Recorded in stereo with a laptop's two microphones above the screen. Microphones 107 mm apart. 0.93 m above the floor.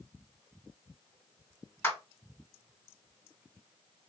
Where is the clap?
20° left (ahead or behind), 3 m.